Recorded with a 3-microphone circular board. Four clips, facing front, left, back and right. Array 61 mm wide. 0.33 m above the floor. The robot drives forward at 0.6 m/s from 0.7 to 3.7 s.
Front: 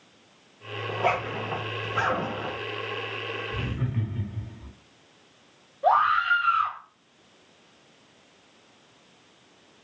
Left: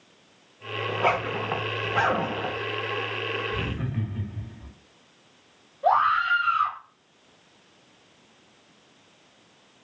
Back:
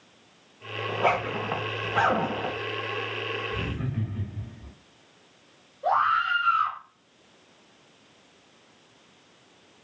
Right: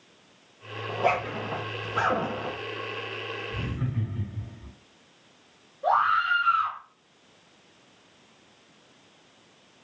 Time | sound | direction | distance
0.9 | a zipper | 95° left | 1.4 m
3.5 | laughter | 85° left | 2 m
5.8 | a scream | 35° left | 1.7 m